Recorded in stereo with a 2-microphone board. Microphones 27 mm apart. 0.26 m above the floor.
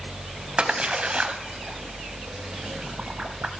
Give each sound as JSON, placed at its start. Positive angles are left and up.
{"t": 0.6, "sound": "a splash", "side_deg": -40, "distance_m": 1.3}